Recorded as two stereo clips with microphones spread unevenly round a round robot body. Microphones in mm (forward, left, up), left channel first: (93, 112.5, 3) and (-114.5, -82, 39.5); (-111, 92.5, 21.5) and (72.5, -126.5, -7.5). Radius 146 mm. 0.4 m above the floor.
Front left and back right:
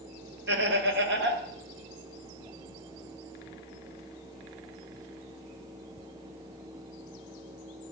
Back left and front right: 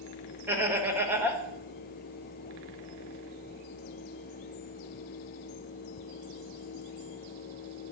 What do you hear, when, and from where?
0.5 s laughter: 115° right, 1.4 m